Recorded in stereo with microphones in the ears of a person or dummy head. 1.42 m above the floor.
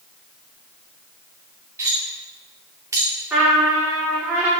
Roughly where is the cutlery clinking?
Centre.